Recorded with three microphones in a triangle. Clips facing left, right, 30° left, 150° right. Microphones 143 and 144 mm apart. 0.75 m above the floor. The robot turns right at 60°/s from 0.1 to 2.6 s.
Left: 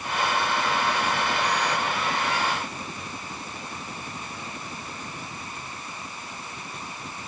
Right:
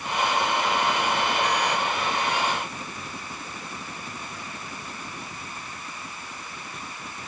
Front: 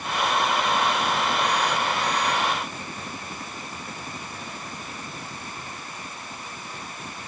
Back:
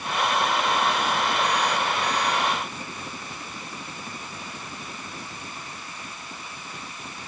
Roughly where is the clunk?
I don't hear a clunk.